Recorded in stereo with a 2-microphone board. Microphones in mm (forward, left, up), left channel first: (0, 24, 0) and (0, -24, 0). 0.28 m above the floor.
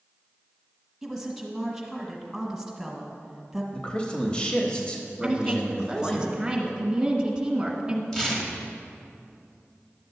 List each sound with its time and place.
1.0 s a woman speaking: centre (ahead or behind), 1.7 m
3.7 s a man speaking: 20° left (ahead or behind), 0.9 m
5.2 s a woman speaking: 15° right (ahead or behind), 1.4 m
8.1 s tearing paper: 10° left (ahead or behind), 1.3 m